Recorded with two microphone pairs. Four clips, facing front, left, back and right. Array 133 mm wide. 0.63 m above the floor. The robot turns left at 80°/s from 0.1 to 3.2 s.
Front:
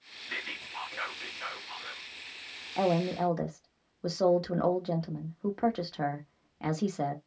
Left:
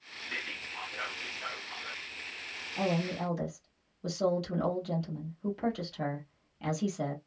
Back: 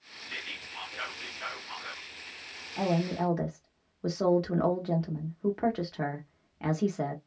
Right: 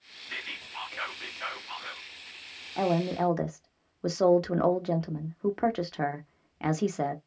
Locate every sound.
0.3 s whispering: 10° left, 0.6 m; by 2.0 s 130° right, 0.6 m
2.8 s a woman speaking: 40° right, 0.8 m; by 7.2 s 80° right, 0.8 m